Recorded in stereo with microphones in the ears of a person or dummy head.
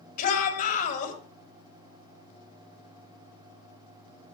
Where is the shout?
50° left (ahead or behind), 6 m.